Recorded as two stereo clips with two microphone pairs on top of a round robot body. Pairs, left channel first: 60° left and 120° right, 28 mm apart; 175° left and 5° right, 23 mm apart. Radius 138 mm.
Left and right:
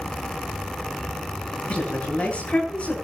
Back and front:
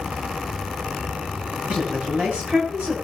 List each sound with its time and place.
1.7 s a woman speaking: 20° left, 9.5 m